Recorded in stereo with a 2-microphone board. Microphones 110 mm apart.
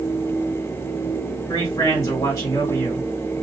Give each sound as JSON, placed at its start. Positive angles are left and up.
{"t": 1.5, "sound": "a man speaking", "side_deg": 35, "distance_m": 1.5}